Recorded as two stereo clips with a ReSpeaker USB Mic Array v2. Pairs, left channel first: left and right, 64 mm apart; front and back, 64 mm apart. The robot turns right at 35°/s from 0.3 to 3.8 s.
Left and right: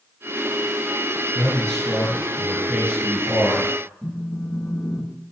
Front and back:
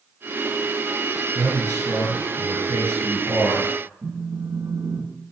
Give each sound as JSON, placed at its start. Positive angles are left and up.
{"t": 1.4, "sound": "a man speaking", "azimuth_deg": 150, "distance_m": 3.5}
{"t": 4.0, "sound": "a phone buzzing", "azimuth_deg": 160, "distance_m": 1.3}